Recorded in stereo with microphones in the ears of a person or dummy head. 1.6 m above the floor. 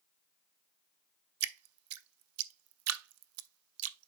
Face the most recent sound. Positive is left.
turn(degrees=-80)